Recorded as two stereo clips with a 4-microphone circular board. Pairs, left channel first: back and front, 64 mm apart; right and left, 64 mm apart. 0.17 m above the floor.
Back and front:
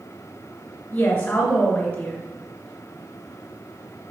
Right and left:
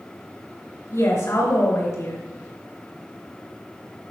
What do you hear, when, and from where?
0.9 s a woman speaking: 115° right, 2 m